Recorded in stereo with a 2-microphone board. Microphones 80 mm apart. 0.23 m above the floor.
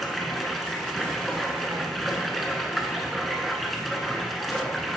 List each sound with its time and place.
0.0 s running water: centre (ahead or behind), 0.9 m